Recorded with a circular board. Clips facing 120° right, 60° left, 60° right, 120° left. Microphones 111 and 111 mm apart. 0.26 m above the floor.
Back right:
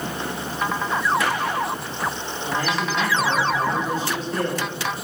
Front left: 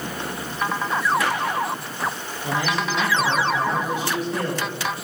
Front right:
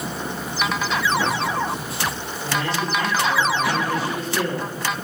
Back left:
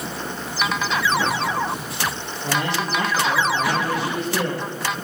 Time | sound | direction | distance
2.4 | a man speaking | 140° left | 8.5 m